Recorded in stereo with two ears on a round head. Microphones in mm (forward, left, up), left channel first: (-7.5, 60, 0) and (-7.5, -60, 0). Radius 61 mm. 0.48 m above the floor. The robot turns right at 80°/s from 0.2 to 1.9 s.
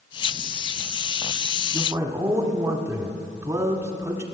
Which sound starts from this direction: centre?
A man speaking, at 1.7 s.